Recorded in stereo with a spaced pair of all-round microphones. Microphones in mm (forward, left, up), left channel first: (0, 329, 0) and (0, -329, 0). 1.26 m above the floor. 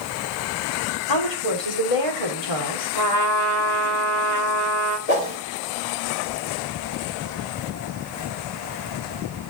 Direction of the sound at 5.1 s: 65° left (ahead or behind).